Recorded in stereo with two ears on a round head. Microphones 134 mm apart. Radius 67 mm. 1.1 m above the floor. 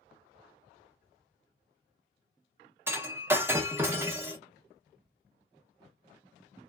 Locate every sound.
2.9 s breaking glass: 15° right (ahead or behind), 0.8 m